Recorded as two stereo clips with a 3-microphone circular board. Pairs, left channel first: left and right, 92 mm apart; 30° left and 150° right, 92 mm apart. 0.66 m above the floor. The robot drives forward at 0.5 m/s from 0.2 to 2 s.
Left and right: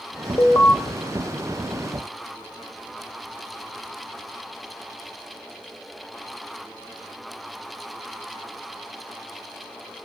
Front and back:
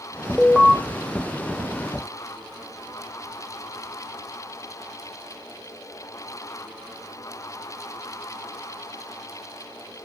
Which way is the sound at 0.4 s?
105° left.